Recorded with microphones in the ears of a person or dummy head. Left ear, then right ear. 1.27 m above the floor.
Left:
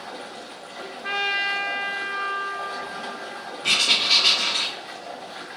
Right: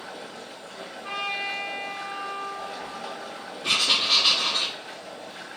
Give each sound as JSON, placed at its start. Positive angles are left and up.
{"t": 0.0, "sound": "running water", "side_deg": 25, "distance_m": 2.5}
{"t": 1.0, "sound": "a trumpet", "side_deg": 40, "distance_m": 0.8}
{"t": 3.6, "sound": "writing", "side_deg": 15, "distance_m": 2.0}